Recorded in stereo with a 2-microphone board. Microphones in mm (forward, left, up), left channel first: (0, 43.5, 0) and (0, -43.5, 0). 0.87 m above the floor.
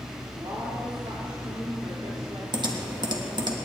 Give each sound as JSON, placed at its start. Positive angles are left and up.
{"t": 0.3, "sound": "a woman speaking", "side_deg": -65, "distance_m": 2.5}
{"t": 2.5, "sound": "typing on a keyboard", "side_deg": -55, "distance_m": 1.3}